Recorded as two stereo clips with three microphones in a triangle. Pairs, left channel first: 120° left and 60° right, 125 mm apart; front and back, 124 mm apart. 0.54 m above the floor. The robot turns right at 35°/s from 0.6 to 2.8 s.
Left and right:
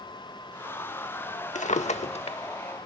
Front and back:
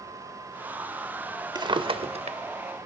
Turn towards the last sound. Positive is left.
turn(degrees=170)